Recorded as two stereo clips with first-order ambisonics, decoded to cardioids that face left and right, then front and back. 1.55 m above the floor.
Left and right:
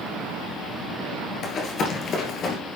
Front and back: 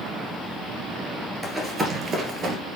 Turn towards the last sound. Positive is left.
turn(degrees=135)